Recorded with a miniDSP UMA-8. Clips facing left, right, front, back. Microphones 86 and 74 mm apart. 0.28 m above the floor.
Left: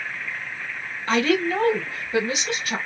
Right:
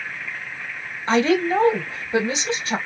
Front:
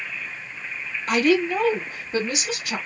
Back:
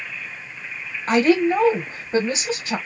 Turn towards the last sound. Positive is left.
turn(degrees=-145)